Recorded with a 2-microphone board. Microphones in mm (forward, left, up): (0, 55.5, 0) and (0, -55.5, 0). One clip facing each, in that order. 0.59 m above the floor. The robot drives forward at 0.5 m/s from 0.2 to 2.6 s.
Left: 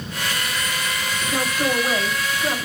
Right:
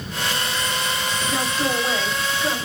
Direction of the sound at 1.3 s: Centre (ahead or behind).